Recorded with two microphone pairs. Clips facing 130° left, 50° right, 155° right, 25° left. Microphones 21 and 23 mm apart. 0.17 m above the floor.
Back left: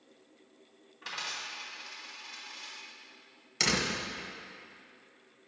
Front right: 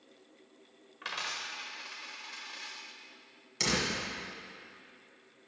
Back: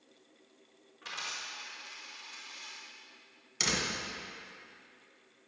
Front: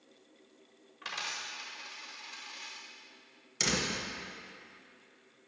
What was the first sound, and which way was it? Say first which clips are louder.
A dropped coin: front right 1 dB, front 1 dB; 40° right.